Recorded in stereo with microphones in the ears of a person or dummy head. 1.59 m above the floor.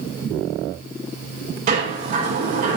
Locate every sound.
1.7 s a sliding door: 40° right (ahead or behind), 6 m